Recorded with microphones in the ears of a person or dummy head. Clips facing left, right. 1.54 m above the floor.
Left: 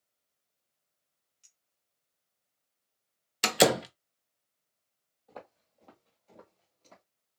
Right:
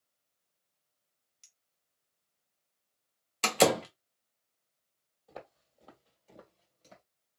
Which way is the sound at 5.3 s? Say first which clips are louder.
Even; 15° right (ahead or behind).